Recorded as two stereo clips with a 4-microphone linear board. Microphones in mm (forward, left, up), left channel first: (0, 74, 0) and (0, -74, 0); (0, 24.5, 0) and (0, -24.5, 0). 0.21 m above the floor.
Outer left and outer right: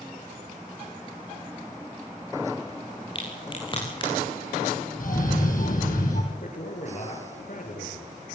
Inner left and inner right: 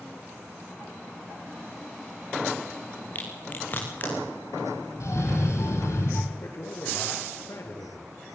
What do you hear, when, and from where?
3.1 s a crack: 35° left (ahead or behind), 6.5 m
5.0 s a cough: 70° left (ahead or behind), 6.5 m
6.3 s a man speaking: 60° left (ahead or behind), 3.5 m